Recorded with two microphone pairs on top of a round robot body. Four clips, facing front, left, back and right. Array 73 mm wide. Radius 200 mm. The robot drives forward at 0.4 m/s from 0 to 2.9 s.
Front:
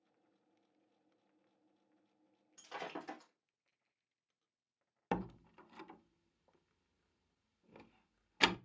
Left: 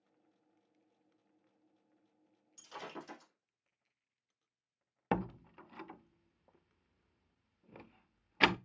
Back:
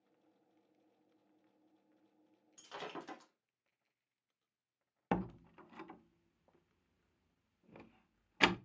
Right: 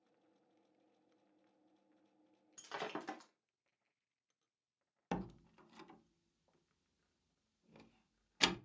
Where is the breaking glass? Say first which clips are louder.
Right 2 dB, front 1 dB; 85° right, 1.1 m; by 3.3 s 95° right, 1.1 m.